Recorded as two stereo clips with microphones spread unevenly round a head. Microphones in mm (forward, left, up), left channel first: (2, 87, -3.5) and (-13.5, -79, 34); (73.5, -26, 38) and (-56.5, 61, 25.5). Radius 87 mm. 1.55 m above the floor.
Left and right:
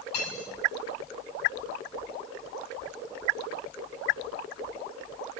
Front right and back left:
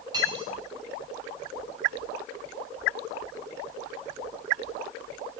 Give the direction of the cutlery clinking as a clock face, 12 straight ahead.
9 o'clock.